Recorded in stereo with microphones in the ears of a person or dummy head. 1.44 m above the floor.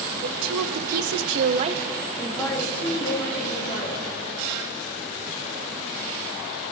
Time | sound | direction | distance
0.2 | a woman speaking | 70° right (ahead or behind) | 1.6 m